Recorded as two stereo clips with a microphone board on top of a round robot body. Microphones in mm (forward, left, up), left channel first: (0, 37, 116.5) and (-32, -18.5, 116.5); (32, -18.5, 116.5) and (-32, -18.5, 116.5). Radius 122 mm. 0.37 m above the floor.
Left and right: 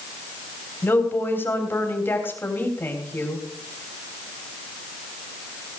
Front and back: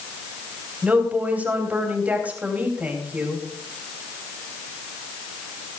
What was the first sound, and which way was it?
A woman speaking, 115° left.